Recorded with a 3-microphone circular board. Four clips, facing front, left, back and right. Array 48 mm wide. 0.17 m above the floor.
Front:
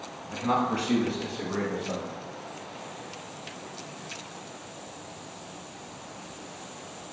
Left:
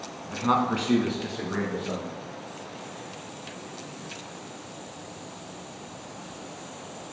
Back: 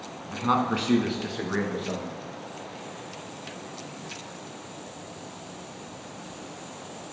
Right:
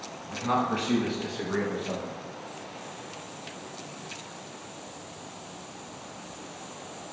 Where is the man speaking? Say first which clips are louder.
Left 3 dB, back 2 dB; 130° left, 1.2 m; by 2.1 s 175° right, 2.5 m.